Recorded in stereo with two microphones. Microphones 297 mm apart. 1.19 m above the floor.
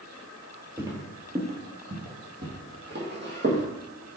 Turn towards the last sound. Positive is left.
turn(degrees=-40)  # may be behind; listen again after turning